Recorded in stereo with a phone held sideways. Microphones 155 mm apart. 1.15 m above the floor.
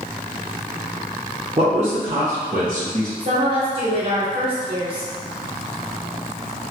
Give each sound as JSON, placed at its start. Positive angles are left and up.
{"t": 1.6, "sound": "a man speaking", "side_deg": -40, "distance_m": 0.6}
{"t": 3.2, "sound": "a woman speaking", "side_deg": -35, "distance_m": 1.2}